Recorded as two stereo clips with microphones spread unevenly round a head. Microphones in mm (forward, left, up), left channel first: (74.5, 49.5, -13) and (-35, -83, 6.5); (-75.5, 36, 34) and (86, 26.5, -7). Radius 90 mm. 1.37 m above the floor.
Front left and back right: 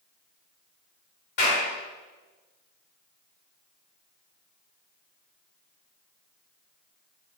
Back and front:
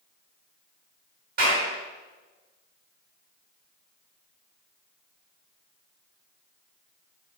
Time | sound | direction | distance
1.4 | a clap | 25° left | 3 m